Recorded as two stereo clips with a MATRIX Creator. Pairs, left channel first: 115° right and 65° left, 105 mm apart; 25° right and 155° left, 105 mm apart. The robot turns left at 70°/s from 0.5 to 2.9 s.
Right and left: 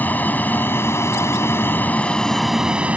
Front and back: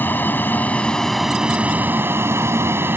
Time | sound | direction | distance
0.0 | an aircraft | 65° right | ?